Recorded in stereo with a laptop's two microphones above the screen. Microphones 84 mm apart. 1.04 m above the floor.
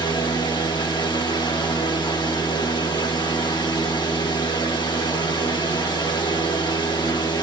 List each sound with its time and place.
0.0 s a fan: 70° left (ahead or behind), 1.7 m